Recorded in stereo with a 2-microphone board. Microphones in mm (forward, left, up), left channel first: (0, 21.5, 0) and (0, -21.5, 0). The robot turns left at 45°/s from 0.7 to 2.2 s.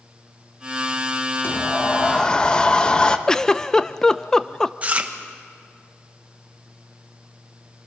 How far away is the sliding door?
About 1.1 m.